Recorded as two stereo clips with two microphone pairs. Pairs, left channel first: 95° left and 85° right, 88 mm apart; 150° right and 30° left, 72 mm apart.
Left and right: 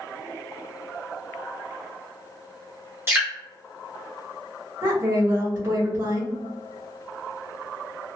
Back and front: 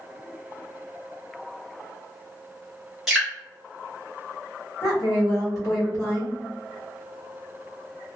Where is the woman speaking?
130° right, 2.0 m.